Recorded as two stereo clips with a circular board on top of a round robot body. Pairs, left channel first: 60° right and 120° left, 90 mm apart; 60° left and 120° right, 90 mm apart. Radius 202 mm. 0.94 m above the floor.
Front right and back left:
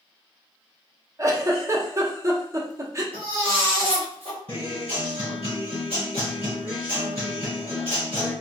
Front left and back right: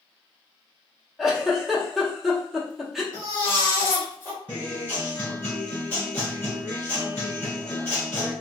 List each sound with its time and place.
1.2 s a giggle: 155° left, 1.0 m
3.1 s a baby crying: 130° left, 1.0 m
4.5 s a guitar: 130° left, 1.4 m